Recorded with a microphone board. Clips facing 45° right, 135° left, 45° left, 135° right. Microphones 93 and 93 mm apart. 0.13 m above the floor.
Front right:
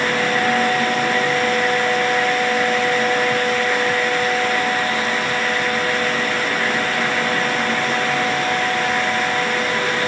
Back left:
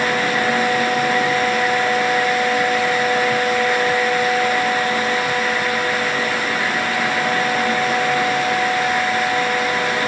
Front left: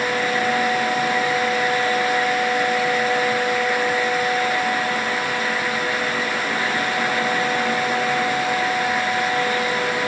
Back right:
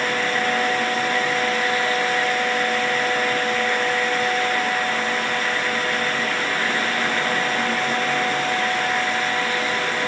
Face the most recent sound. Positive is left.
No sound to turn to.